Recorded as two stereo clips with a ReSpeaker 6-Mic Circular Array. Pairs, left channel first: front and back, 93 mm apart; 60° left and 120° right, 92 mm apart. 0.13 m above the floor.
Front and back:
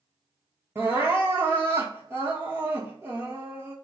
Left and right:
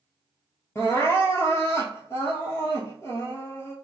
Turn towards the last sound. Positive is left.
turn(degrees=115)